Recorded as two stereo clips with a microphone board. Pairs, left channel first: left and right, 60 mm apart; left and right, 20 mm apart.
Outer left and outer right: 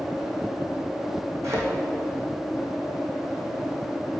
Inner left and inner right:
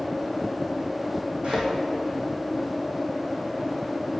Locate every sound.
1.4 s a thud: 55° right (ahead or behind), 3 m